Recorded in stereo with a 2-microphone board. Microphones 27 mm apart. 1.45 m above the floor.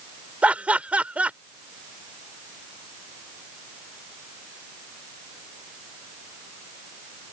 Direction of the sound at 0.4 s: 60° right (ahead or behind).